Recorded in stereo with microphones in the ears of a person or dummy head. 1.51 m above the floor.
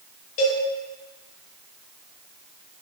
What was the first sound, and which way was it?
A cowbell, 40° left (ahead or behind).